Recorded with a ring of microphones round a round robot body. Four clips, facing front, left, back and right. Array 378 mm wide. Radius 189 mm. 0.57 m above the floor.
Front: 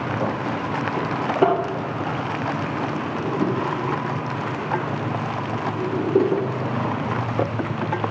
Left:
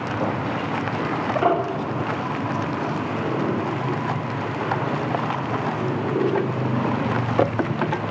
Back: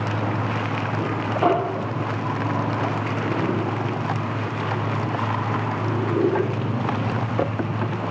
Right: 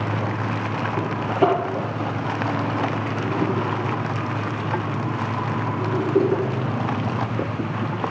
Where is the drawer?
25° right, 5.5 m.